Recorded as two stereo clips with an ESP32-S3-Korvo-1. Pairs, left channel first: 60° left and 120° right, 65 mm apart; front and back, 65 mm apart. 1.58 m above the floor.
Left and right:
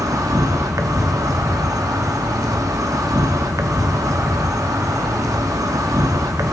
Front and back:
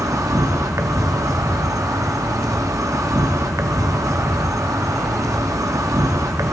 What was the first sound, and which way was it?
An insect, 150° right.